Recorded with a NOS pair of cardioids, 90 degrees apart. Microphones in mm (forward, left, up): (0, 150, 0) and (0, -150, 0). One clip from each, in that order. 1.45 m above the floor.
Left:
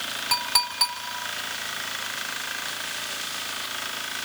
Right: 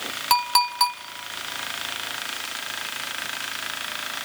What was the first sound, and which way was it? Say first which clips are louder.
A clink: right 5 dB; 65° right.